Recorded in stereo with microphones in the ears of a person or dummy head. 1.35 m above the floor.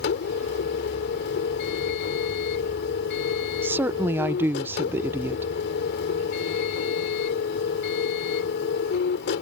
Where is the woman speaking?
10° right (ahead or behind).